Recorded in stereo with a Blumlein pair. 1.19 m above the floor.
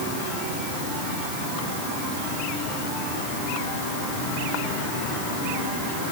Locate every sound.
Only background noise.